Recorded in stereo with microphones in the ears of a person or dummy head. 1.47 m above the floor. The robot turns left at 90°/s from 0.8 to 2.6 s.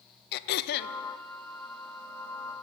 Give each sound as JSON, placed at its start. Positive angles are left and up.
{"t": 0.3, "sound": "throat clearing", "side_deg": 55, "distance_m": 0.5}